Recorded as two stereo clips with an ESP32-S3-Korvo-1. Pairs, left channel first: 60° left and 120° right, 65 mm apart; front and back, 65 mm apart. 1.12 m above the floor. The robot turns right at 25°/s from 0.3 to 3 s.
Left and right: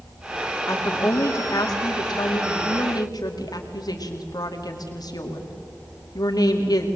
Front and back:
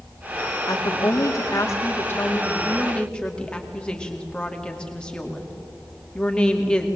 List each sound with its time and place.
0.7 s a woman speaking: 20° left, 2.5 m; by 6.9 s 75° left, 2.5 m